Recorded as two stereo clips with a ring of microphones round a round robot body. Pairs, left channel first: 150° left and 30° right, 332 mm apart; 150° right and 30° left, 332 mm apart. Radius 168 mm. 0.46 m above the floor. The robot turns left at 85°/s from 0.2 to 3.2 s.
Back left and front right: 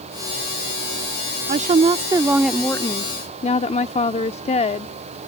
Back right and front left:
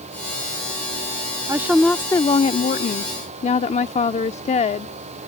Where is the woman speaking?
35° right; by 4.9 s straight behind.